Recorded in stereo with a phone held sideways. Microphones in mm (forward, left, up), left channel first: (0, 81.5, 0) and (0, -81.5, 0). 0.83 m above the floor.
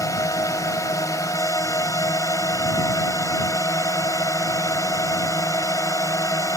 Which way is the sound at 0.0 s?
20° left (ahead or behind).